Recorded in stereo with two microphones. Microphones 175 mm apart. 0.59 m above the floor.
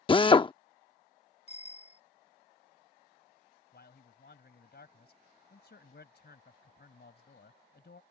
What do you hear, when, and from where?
0.1 s a drill: 30° left (ahead or behind)
1.5 s a bicycle bell: 40° left (ahead or behind)
3.7 s a man speaking: 70° left (ahead or behind)